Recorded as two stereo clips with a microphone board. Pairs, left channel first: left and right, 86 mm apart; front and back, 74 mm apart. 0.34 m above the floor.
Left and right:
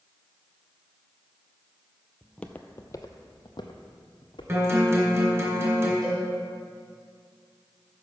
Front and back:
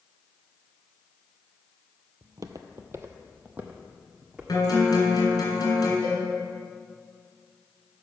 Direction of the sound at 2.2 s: Straight behind.